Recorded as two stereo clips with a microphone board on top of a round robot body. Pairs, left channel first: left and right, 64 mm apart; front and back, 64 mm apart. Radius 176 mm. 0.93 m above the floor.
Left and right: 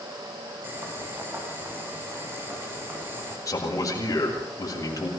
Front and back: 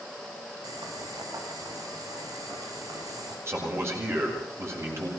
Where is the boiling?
150° right, 6 m.